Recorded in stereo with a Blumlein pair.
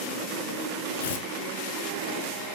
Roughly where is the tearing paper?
Ahead left.